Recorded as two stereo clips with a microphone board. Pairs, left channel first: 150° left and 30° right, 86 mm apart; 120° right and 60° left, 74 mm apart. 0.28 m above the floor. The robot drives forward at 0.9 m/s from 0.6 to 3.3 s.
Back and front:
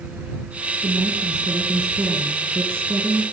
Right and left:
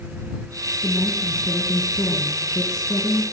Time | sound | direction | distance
0.8 | a woman speaking | 65° right | 4.5 m